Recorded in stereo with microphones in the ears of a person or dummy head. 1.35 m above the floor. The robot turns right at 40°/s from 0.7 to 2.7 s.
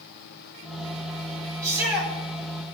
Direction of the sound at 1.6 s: 20° right (ahead or behind).